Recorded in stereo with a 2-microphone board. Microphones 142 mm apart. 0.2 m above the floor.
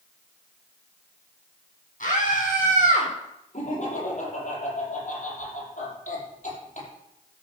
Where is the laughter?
55° left (ahead or behind), 6.5 m.